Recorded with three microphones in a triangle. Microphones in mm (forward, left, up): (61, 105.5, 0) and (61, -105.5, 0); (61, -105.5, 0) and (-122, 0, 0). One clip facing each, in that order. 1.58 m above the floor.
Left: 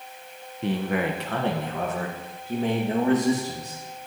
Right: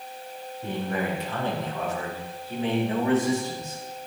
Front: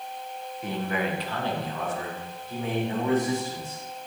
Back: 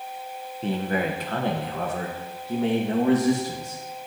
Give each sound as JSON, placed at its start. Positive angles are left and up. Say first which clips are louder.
{"t": 0.6, "sound": "a man speaking", "louder": "left 4 dB, back 4 dB", "azimuth_deg": 90, "distance_m": 1.2}